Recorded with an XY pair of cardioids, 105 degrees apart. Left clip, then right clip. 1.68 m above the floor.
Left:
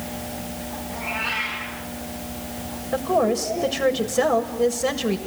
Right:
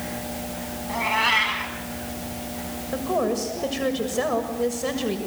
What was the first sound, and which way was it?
A cat meowing, 60° right.